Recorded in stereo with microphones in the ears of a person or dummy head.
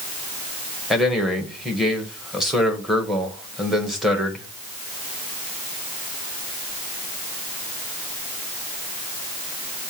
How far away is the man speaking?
About 1.3 m.